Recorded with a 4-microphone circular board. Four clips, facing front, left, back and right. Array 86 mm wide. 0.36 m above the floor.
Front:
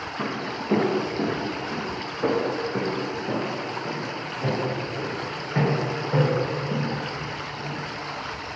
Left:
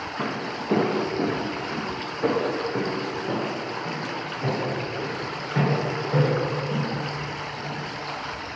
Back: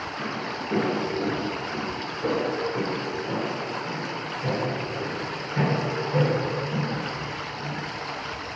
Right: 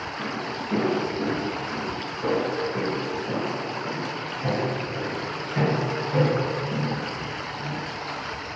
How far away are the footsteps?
About 1.2 m.